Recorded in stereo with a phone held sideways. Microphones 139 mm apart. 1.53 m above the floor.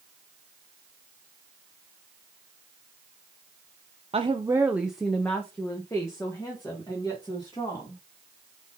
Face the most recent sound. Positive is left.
turn(degrees=30)  # may be behind; listen again after turning